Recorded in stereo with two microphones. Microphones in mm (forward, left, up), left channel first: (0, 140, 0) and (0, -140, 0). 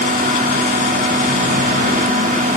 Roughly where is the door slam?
I don't hear a door slam.